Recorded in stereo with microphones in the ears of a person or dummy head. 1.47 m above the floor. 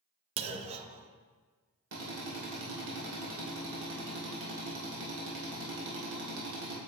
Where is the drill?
65° right (ahead or behind), 2.5 m.